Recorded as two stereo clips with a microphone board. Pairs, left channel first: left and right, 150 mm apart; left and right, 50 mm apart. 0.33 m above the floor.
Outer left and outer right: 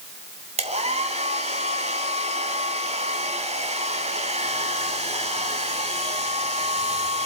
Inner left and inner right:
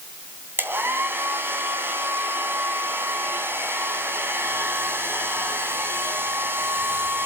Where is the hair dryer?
50° right (ahead or behind), 2.5 m.